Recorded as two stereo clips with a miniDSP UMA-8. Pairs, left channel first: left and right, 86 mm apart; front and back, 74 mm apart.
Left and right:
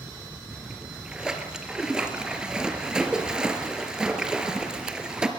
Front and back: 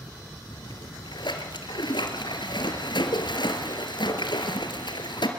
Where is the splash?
10° right, 3 m.